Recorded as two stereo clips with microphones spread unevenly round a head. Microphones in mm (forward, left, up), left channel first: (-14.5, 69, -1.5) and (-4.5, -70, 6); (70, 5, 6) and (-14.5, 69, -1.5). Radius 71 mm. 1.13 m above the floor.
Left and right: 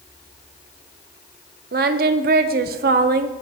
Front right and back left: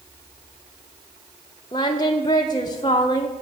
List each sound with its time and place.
1.7 s singing: 100° right, 0.5 m